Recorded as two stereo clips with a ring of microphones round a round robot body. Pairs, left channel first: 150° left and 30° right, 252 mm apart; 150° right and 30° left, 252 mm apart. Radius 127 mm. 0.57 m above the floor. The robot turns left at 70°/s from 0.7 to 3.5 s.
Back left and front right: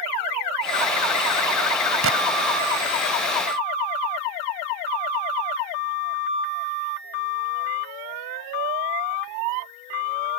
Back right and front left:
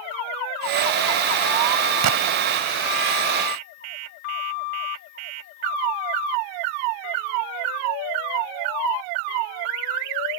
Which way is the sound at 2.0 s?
10° left.